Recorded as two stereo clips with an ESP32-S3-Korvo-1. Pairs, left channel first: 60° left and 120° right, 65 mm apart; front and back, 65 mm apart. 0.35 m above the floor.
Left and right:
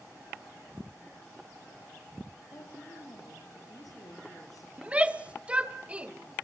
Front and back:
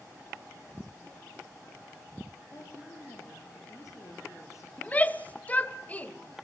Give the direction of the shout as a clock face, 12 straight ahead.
2 o'clock.